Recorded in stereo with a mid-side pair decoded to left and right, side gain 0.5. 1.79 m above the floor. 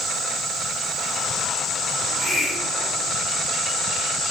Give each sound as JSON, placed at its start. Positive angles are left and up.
{"t": 2.0, "sound": "a hiss", "azimuth_deg": 40, "distance_m": 7.0}